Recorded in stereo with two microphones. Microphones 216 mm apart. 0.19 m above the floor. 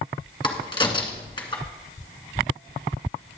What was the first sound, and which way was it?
A crack, 25° left (ahead or behind).